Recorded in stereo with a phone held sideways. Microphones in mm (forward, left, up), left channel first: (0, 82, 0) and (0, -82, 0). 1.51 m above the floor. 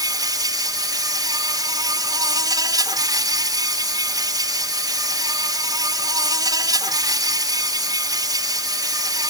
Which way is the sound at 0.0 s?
25° right (ahead or behind).